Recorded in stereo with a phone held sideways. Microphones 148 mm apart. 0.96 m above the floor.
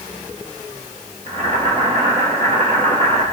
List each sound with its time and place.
1.3 s boiling: 50° right (ahead or behind), 2 m